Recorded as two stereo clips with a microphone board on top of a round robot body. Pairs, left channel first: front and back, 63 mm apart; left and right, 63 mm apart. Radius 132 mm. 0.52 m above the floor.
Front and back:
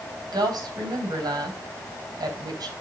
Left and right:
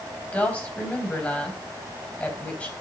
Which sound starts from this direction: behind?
A woman speaking, at 0.3 s.